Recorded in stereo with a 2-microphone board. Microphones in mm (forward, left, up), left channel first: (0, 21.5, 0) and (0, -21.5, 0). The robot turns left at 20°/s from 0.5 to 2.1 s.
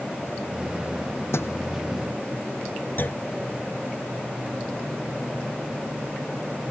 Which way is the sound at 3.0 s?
50° left (ahead or behind).